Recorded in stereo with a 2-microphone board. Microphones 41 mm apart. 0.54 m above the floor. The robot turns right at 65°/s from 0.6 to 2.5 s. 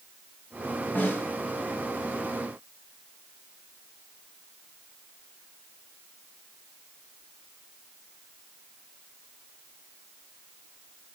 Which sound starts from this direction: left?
A snare drum, at 0.9 s.